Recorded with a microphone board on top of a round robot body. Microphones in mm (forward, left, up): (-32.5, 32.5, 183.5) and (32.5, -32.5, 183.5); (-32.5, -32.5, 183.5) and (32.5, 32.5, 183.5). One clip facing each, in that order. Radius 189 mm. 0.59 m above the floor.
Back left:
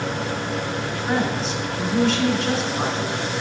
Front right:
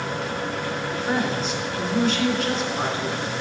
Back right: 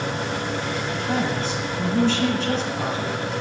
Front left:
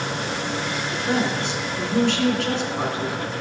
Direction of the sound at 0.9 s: 40° left.